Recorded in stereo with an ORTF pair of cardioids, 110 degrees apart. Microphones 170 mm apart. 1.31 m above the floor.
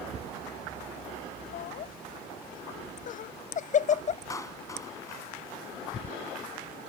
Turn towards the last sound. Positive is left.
turn(degrees=20)